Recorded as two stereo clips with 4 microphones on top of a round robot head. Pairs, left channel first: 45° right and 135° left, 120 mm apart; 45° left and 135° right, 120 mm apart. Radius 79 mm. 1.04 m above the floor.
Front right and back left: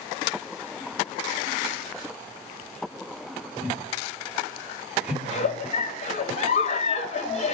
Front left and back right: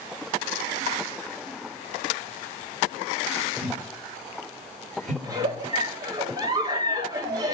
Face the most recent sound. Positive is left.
turn(degrees=-75)